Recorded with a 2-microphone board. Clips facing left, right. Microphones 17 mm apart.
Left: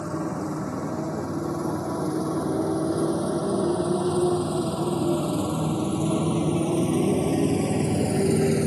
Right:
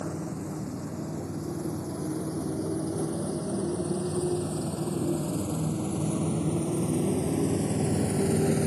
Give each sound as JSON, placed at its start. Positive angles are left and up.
{"t": 0.0, "sound": "a motorcycle", "side_deg": 60}